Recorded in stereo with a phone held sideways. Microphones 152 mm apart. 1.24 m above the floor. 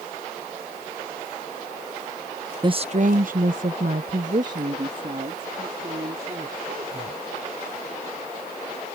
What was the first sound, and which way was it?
A woman speaking, 30° right (ahead or behind).